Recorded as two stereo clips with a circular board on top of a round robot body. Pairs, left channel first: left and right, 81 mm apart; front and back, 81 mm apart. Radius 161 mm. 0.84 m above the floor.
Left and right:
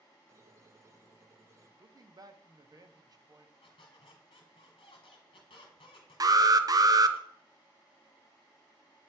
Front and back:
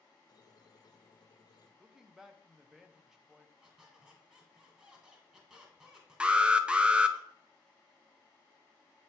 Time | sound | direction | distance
0.3 | a squeak | 35° right | 0.8 m
1.8 | a man speaking | 100° right | 1.0 m
3.6 | a squeak | 100° left | 1.2 m
6.2 | an alarm | 105° right | 0.7 m